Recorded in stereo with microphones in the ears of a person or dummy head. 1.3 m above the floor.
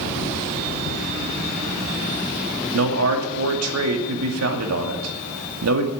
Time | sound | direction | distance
2.7 | a man speaking | 90° right | 2.5 m